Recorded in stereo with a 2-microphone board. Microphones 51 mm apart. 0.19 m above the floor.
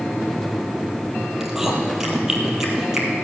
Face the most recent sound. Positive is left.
turn(degrees=-10)  # may be behind; listen again after turning